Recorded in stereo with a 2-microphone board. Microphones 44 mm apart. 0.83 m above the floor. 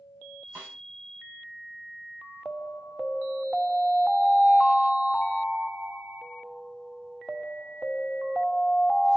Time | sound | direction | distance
0.6 | a snare drum | 50° right (ahead or behind) | 6 m
2.5 | an alarm | 15° right (ahead or behind) | 2 m